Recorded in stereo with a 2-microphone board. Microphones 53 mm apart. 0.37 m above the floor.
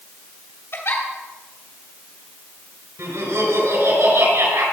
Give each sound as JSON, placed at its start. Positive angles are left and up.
{"t": 0.7, "sound": "a giggle", "side_deg": 60, "distance_m": 3.0}
{"t": 3.0, "sound": "laughter", "side_deg": -75, "distance_m": 5.5}